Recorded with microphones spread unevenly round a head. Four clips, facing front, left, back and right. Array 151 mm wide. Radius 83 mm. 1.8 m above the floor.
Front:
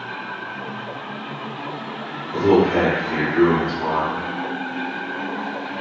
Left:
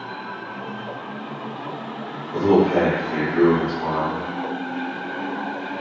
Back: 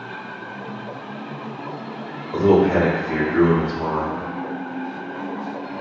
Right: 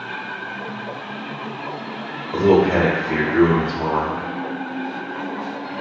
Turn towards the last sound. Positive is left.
turn(degrees=-105)